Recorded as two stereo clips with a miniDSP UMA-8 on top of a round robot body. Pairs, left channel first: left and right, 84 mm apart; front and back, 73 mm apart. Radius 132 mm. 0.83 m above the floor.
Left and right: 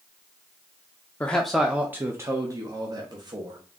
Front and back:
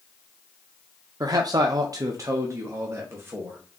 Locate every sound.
1.2 s a man speaking: 165° left, 0.6 m; by 3.6 s 120° right, 1.3 m